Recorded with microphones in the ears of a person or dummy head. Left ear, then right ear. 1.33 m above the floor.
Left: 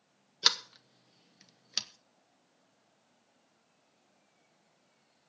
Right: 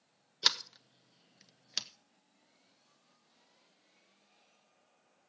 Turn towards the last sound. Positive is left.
turn(degrees=0)  # may be behind; listen again after turning